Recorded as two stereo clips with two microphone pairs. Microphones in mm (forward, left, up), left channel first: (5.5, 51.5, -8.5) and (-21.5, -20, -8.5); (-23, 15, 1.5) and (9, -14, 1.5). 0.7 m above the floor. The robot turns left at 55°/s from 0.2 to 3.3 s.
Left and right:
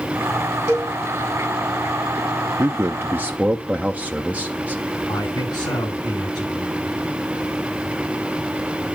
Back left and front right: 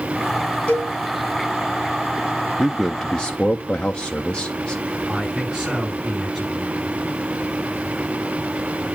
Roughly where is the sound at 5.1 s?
Ahead left.